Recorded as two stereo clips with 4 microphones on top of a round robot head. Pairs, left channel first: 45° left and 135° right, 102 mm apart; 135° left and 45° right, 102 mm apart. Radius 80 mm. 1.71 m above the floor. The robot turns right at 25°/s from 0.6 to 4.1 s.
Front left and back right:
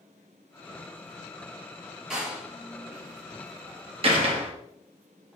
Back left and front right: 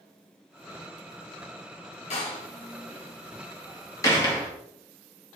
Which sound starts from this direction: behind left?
A door slam, at 2.1 s.